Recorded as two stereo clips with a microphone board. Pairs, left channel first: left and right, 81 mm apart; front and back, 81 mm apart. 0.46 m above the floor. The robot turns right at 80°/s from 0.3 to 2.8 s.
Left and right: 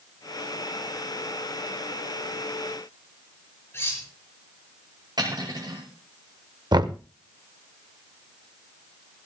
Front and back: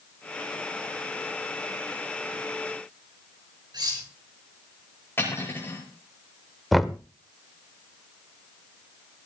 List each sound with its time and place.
3.7 s cutlery clinking: 150° left, 5 m
5.2 s cutlery clinking: 60° right, 5 m
6.7 s knocking: 90° right, 0.7 m